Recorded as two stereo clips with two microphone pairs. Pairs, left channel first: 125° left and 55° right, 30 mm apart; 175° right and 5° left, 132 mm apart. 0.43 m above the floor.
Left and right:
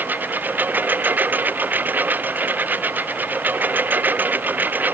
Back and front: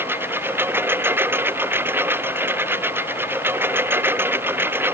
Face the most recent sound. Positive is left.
turn(degrees=-70)